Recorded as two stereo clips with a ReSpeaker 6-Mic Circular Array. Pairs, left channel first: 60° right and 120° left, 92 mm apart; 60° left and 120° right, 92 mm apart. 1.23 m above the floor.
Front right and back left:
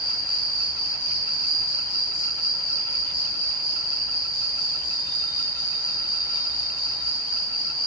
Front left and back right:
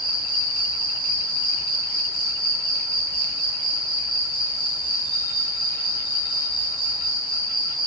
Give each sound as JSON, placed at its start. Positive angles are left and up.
{"t": 0.0, "sound": "an insect", "azimuth_deg": 45, "distance_m": 1.3}